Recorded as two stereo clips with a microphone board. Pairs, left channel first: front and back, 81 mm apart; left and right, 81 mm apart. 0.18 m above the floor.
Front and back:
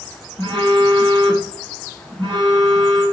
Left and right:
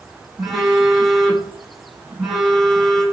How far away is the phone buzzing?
About 2.5 m.